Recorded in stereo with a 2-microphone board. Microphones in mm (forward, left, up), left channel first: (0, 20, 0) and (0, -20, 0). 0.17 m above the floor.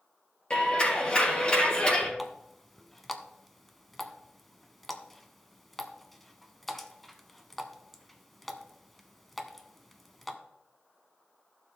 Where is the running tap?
5° left (ahead or behind), 0.9 m.